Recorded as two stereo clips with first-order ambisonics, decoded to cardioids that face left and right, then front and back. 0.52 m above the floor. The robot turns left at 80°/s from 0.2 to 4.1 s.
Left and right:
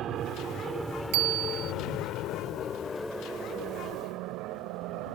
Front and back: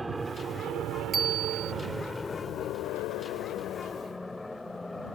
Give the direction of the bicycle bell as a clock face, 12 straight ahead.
4 o'clock.